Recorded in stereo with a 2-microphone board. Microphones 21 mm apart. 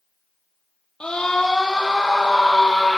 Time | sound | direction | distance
1.0 | a scream | 50° left (ahead or behind) | 5 m